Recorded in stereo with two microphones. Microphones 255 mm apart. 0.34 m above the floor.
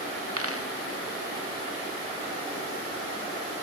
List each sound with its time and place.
0.4 s a dropped coin: 60° right (ahead or behind)